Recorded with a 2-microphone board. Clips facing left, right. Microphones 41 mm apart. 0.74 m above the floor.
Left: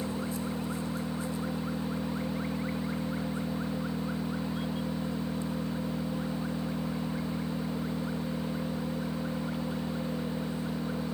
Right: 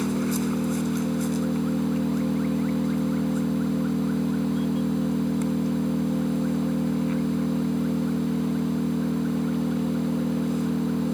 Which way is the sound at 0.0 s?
75° right (ahead or behind).